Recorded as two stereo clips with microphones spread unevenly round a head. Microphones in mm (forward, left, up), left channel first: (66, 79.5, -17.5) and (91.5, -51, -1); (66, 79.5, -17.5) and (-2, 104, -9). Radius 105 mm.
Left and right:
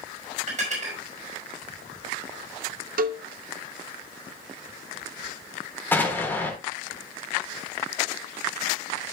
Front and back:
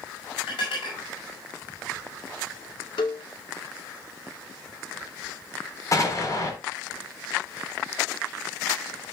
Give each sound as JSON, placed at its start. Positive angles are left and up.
{"t": 0.5, "sound": "dishes clattering", "azimuth_deg": -50, "distance_m": 4.5}
{"t": 3.0, "sound": "a cowbell", "azimuth_deg": -70, "distance_m": 0.5}
{"t": 5.9, "sound": "an explosion", "azimuth_deg": 25, "distance_m": 3.5}